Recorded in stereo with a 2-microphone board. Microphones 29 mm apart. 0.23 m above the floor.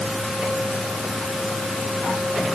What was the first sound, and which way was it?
Only background noise.